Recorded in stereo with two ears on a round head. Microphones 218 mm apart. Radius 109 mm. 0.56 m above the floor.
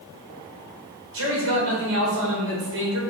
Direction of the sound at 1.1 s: 60° right (ahead or behind).